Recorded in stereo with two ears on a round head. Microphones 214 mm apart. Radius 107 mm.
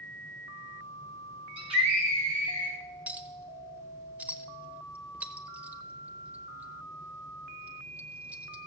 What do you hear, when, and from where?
1.6 s a scream: 25° right (ahead or behind), 5.5 m; by 2.8 s 40° right (ahead or behind), 4 m
3.1 s a clink: 5° right (ahead or behind), 0.8 m